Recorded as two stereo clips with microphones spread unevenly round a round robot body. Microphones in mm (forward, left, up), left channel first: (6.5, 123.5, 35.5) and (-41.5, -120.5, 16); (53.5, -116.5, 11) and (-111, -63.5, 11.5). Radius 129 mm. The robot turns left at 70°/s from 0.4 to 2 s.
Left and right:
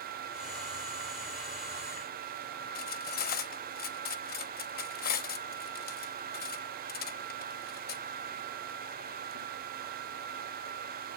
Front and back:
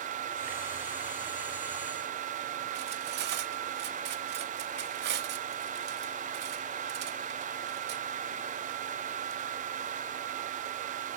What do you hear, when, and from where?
2.8 s cutlery clinking: 135° left, 1.0 m